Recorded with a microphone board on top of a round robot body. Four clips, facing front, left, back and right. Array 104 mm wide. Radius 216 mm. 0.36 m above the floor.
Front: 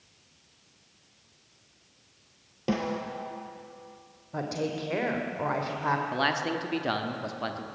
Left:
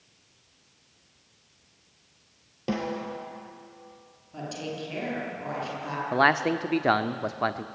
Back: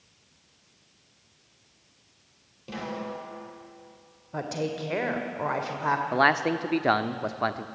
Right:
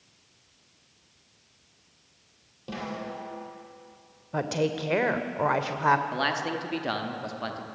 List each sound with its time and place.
2.7 s a snare drum: 40° left, 4 m
4.3 s a woman speaking: 100° right, 2 m
6.1 s a man speaking: 130° left, 1.3 m